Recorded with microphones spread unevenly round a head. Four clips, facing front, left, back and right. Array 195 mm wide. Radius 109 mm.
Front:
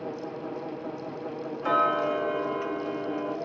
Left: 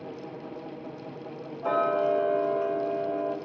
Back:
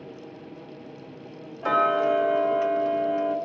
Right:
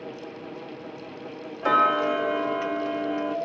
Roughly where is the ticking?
Right.